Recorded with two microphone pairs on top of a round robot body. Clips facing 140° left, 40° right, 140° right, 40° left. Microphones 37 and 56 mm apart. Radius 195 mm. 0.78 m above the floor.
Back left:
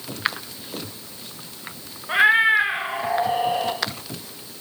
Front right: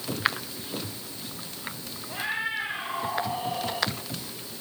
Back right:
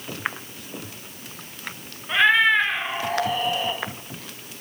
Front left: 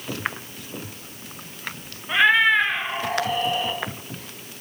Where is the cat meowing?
130° left, 1.9 m; by 3.8 s 135° left, 3 m.